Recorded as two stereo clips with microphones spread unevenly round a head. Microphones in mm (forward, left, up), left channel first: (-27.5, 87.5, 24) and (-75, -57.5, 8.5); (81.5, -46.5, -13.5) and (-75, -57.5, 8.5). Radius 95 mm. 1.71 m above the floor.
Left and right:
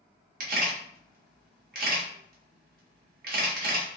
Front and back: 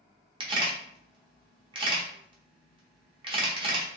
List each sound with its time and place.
0.4 s a camera shutter: 125° right, 1.5 m